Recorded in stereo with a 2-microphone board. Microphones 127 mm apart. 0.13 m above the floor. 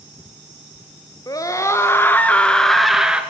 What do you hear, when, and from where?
1.3 s a scream: 30° left (ahead or behind), 2 m; by 3.2 s 5° right (ahead or behind), 1.8 m